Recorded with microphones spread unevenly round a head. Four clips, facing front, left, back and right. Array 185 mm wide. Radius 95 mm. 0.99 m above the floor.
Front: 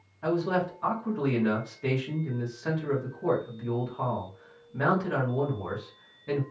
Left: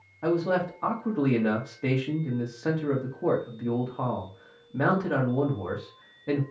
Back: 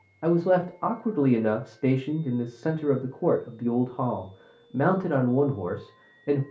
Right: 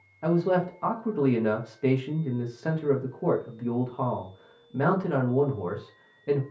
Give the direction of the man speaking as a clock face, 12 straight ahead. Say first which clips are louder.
Right 1 dB, back 5 dB; 5 o'clock.